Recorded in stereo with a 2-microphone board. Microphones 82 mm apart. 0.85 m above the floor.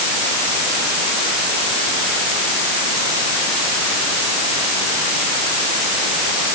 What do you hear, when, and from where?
Only background noise.